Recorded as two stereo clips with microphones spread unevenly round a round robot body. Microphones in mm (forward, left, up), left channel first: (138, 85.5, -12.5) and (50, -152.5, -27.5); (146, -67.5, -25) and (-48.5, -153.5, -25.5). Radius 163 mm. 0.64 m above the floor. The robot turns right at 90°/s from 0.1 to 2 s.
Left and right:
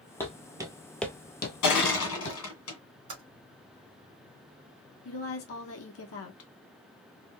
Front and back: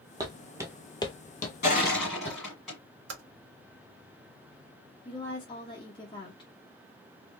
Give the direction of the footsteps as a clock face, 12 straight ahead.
7 o'clock.